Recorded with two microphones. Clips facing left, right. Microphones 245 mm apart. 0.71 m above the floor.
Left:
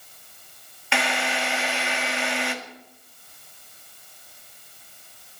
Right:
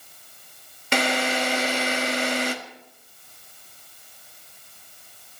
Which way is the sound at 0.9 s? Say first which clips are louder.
Right 4 dB; 45° right (ahead or behind).